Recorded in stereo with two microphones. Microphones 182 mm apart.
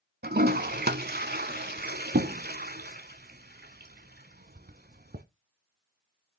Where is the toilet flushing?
65° right (ahead or behind), 0.8 m.